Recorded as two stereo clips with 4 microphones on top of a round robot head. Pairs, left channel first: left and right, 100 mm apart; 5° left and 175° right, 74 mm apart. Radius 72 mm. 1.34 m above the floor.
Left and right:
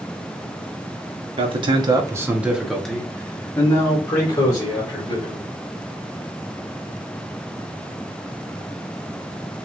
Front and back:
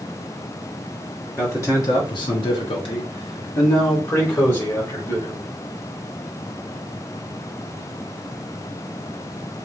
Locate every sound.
1.4 s a man speaking: 65° right, 1.1 m; by 5.4 s 45° left, 3 m